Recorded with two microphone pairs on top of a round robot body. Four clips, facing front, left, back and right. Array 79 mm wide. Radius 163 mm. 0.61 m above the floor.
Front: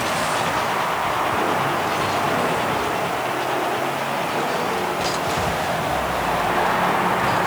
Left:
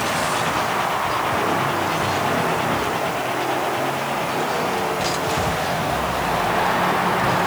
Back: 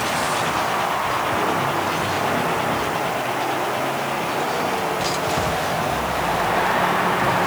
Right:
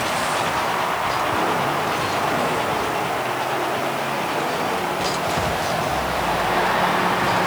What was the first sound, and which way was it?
Only background noise.